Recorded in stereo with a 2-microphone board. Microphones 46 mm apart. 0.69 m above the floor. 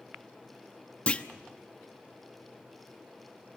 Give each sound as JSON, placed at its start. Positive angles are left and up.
{"t": 1.1, "sound": "a clunk", "side_deg": 30, "distance_m": 0.9}